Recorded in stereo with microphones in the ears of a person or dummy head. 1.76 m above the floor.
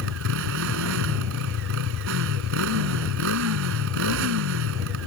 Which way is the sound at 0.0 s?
75° right (ahead or behind).